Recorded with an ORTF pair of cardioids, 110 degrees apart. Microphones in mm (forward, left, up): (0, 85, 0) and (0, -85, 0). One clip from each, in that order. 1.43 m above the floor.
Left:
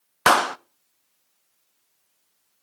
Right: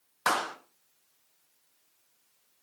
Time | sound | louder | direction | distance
0.3 | a clap | left 11 dB | 45° left | 0.6 m